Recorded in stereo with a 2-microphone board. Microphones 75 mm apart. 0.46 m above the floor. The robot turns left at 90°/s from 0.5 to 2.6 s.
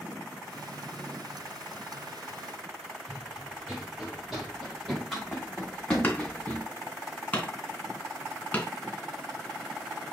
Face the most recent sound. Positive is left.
turn(degrees=20)  # may be behind; listen again after turning